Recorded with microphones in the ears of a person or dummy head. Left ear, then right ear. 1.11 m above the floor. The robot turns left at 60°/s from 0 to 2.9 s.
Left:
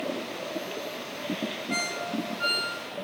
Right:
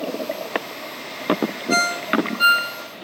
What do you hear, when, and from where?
1.7 s a ringtone: 40° right (ahead or behind), 1.9 m; by 2.7 s 80° right, 1.9 m